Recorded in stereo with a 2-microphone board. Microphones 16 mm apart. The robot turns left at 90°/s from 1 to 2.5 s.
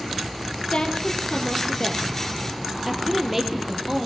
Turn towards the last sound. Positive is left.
turn(degrees=-10)  # may be behind; listen again after turning